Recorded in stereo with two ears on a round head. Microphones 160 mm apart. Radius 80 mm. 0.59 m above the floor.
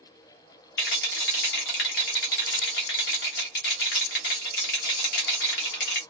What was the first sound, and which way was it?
A rattle, 65° left (ahead or behind).